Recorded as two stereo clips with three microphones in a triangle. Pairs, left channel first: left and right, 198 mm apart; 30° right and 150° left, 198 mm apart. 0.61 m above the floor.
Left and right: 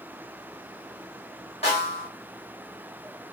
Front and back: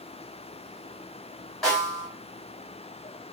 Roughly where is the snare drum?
Ahead left.